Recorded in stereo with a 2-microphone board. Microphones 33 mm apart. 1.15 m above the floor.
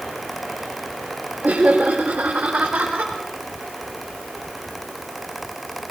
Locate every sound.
1.4 s laughter: 70° right (ahead or behind), 3 m; by 3.1 s 55° right (ahead or behind), 4 m